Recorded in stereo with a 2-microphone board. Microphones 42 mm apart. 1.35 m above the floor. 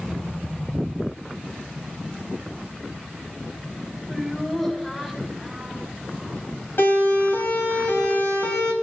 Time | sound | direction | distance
4.1 | laughter | 5° left (ahead or behind) | 5 m
6.8 | a siren | 65° left (ahead or behind) | 6.5 m